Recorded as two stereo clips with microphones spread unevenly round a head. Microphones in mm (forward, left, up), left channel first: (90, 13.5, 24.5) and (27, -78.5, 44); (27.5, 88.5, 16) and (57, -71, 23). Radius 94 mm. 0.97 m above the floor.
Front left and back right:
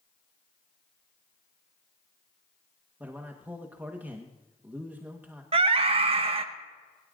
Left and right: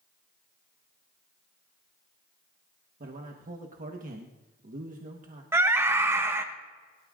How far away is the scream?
About 1.0 m.